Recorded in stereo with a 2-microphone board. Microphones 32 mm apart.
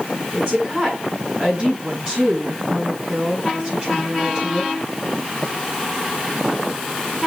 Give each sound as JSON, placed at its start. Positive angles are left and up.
{"t": 0.3, "sound": "a woman speaking", "side_deg": -35, "distance_m": 7.0}